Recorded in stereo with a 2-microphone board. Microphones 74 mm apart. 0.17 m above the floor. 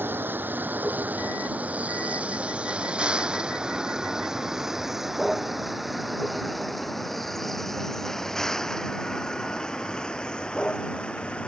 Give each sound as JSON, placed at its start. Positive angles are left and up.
{"t": 0.0, "sound": "a vehicle", "side_deg": -30}